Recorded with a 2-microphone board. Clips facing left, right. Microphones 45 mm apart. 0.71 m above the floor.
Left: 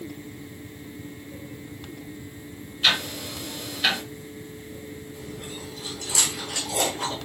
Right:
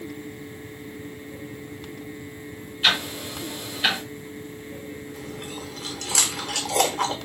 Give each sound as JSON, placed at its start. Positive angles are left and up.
{"t": 2.8, "sound": "ticking", "side_deg": -10, "distance_m": 1.5}
{"t": 5.1, "sound": "chewing", "side_deg": -80, "distance_m": 1.3}